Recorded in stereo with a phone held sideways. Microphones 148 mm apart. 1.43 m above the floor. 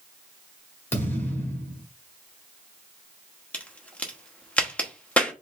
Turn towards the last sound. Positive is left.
turn(degrees=10)  # may be behind; listen again after turning